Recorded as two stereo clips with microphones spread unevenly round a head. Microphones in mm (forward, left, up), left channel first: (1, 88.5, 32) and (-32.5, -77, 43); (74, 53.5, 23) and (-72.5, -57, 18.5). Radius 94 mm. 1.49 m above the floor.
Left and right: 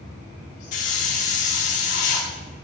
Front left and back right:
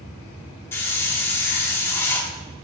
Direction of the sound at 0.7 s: 105° left.